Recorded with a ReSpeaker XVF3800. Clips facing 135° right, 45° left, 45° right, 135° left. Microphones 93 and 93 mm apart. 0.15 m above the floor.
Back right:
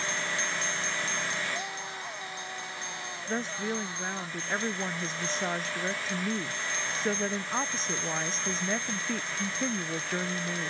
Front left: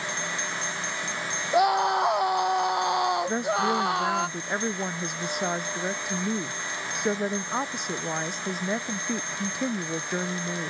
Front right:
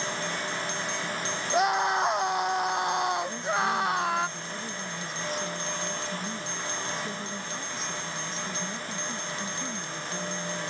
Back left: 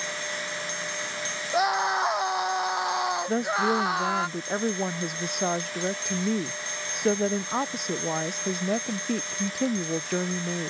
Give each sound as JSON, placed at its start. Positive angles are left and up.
{"t": 1.5, "sound": "a scream", "azimuth_deg": 45}
{"t": 3.3, "sound": "a woman speaking", "azimuth_deg": 120}